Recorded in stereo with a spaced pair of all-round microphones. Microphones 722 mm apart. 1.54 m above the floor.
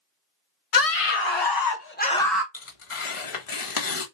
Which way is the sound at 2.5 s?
45° left (ahead or behind).